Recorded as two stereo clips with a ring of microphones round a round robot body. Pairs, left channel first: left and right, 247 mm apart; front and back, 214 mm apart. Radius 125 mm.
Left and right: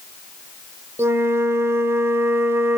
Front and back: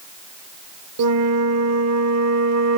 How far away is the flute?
About 0.8 m.